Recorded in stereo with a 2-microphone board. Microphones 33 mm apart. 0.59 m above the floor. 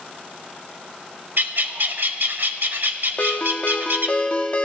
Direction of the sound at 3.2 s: 35° left (ahead or behind).